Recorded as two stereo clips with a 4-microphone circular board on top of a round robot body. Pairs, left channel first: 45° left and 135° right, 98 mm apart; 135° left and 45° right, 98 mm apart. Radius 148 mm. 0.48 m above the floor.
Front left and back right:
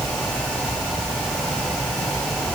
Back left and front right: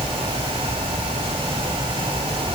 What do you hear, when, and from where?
Only background noise.